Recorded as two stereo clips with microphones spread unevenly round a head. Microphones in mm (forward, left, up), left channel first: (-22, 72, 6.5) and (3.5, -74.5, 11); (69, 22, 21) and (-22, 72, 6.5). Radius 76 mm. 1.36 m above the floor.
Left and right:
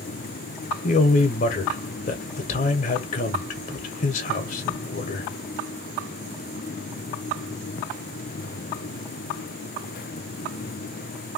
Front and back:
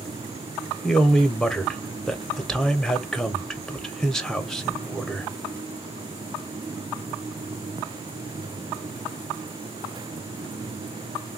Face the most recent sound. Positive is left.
turn(degrees=60)